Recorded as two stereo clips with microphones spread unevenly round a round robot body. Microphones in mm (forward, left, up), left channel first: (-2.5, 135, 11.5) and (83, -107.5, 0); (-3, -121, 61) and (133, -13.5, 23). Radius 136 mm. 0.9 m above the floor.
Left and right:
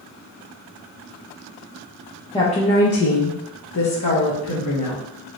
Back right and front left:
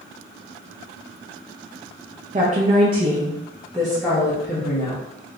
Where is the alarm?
No alarm in this recording.